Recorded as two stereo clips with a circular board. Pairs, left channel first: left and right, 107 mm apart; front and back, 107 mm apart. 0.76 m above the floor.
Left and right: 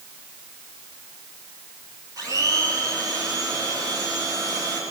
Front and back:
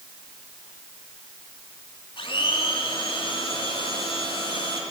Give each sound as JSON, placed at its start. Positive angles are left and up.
{"t": 2.2, "sound": "a blender", "azimuth_deg": -35, "distance_m": 3.0}